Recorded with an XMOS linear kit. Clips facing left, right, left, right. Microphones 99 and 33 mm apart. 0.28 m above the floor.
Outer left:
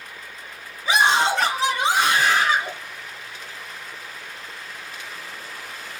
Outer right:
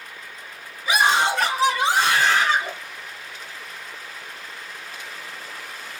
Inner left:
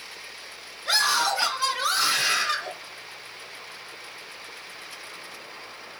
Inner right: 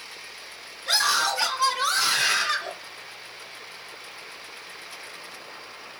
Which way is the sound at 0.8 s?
30° left (ahead or behind).